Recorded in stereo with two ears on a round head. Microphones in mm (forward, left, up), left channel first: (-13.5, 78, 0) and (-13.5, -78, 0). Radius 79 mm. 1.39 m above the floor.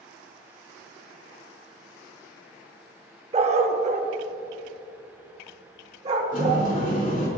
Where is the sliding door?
50° left (ahead or behind), 3 m.